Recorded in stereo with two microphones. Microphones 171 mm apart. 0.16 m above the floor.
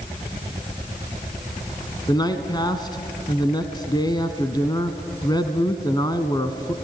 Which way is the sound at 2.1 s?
25° left (ahead or behind).